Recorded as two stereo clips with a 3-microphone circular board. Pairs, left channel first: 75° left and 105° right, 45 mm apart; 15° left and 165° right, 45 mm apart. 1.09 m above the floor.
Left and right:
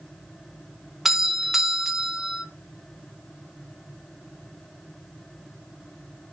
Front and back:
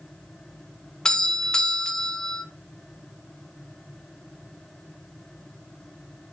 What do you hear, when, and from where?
1.1 s a doorbell: 40° right, 0.6 m